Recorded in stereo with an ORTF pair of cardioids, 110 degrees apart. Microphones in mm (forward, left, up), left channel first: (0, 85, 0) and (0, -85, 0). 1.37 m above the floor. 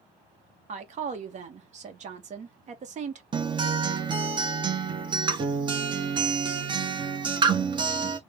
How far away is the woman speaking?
About 1.0 m.